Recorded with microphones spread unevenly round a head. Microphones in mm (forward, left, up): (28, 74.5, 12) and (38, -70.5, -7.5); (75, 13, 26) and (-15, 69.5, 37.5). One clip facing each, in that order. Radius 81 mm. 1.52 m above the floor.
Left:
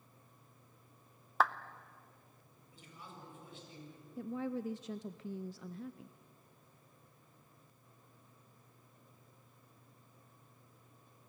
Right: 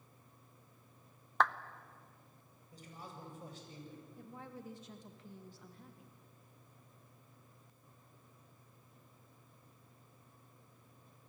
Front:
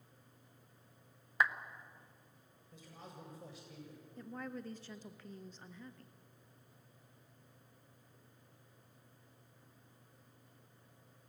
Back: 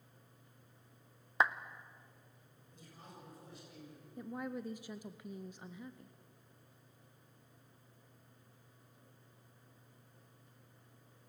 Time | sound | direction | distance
1.4 | a clap | 160° left | 0.6 m
2.7 | a man speaking | 35° right | 7.5 m
4.2 | a woman speaking | 70° left | 0.6 m